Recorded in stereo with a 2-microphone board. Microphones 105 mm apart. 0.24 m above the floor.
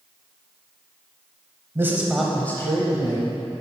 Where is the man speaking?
25° right (ahead or behind), 1.0 m; by 3.3 s 45° left (ahead or behind), 1.3 m.